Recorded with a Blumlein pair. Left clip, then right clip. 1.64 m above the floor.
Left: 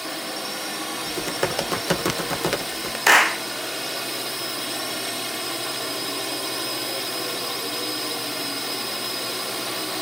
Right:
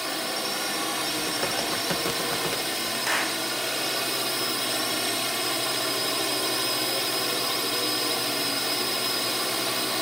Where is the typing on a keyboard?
20° left.